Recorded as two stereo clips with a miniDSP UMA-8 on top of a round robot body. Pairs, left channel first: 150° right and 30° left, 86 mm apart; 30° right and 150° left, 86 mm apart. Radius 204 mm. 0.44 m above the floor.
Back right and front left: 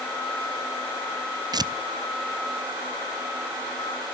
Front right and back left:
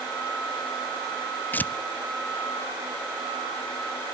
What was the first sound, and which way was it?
Tearing paper, 35° left.